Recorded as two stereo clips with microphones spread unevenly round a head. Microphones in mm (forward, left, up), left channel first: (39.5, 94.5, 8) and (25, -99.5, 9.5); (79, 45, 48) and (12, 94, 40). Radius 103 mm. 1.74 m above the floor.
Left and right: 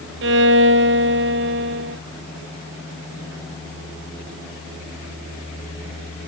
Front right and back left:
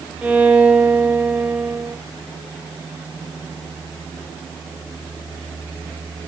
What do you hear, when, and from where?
0.2 s a violin: 135° right, 0.9 m